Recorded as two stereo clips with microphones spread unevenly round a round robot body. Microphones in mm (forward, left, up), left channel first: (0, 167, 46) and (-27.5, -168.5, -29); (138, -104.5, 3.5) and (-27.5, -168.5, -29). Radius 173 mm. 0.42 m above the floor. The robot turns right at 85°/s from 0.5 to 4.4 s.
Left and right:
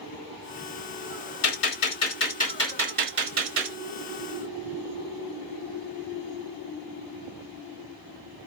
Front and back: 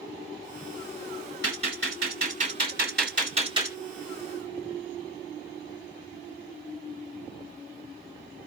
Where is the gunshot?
75° left, 2.5 m; by 3.8 s 90° right, 2.5 m.